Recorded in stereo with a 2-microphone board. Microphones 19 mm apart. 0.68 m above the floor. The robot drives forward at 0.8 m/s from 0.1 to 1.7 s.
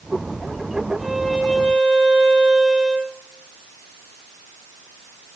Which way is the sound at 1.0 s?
35° right (ahead or behind).